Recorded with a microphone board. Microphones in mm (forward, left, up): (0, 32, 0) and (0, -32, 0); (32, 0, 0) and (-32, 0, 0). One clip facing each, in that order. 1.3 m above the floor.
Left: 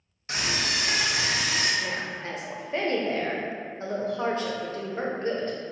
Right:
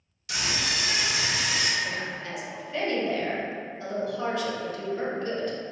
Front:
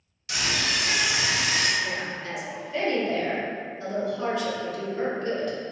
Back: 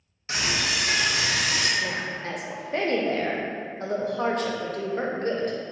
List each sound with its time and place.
0.3 s a scream: 130° left, 0.6 m; by 1.7 s 45° left, 0.8 m
1.8 s a woman speaking: 145° left, 0.5 m